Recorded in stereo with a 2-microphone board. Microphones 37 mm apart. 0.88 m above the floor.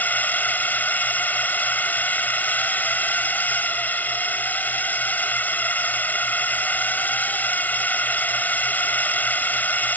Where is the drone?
45° left (ahead or behind).